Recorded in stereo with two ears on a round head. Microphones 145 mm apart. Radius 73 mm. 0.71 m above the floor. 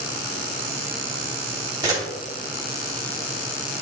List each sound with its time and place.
1.8 s a camera shutter: 25° right (ahead or behind), 3 m